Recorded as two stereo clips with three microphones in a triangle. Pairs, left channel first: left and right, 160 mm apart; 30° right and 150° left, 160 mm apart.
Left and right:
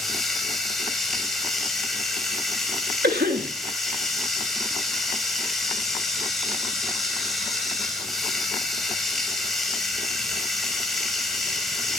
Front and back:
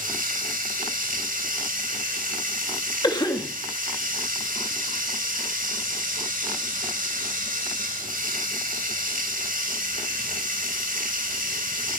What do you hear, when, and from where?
0.0 s running water: straight behind, 3.5 m
3.0 s a cough: 95° right, 2.5 m